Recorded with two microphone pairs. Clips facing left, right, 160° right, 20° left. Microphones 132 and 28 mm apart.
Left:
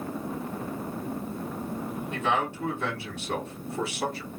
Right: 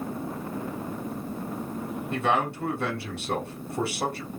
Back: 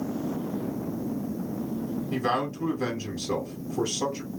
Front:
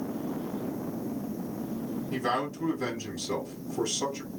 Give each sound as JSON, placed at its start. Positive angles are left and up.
{"t": 2.1, "sound": "a man speaking", "azimuth_deg": -105, "distance_m": 2.5}